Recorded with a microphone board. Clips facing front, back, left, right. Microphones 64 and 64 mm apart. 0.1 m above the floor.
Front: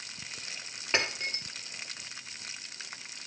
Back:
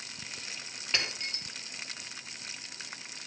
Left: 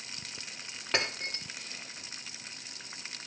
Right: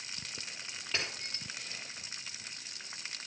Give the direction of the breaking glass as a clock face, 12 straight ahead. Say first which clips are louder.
Front 4 dB, left 7 dB; 10 o'clock.